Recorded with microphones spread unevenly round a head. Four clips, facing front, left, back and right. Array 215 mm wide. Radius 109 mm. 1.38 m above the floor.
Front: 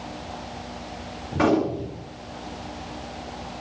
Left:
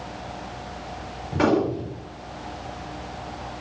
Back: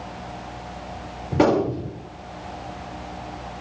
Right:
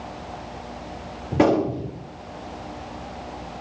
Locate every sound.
1.3 s a gunshot: 120° right, 5.5 m